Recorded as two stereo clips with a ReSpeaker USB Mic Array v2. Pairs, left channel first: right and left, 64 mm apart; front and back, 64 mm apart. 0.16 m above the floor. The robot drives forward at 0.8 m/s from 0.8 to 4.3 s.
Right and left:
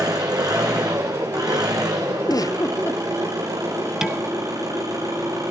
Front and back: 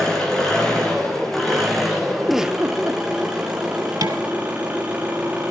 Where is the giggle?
85° right, 0.6 m; by 3.0 s 135° right, 0.8 m.